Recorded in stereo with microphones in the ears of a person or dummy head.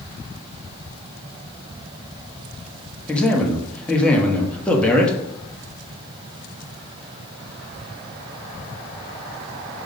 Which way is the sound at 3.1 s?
10° left (ahead or behind).